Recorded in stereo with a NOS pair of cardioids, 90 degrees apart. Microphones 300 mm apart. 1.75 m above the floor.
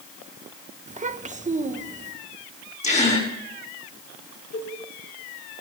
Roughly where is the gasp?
Ahead left.